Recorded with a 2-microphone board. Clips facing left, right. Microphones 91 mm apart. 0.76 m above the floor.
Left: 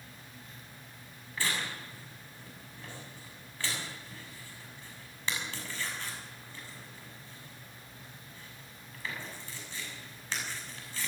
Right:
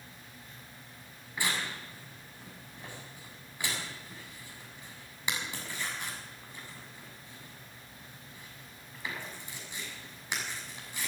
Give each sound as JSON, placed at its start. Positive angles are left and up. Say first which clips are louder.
{"t": 1.4, "sound": "tearing paper", "louder": "right 1 dB", "side_deg": -15, "distance_m": 6.5}